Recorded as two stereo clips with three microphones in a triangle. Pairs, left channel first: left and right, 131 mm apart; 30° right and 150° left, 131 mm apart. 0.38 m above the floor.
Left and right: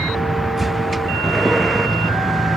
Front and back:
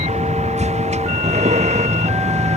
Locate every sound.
0.0 s a vehicle: straight behind